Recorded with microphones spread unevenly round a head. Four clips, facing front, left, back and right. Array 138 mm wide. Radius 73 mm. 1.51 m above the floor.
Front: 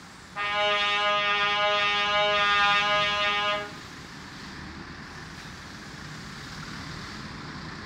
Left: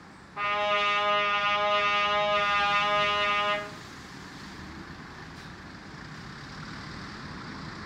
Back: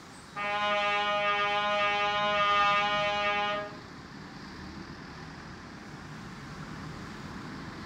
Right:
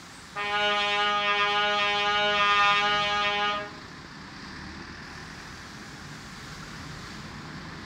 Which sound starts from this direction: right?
A trumpet, at 0.3 s.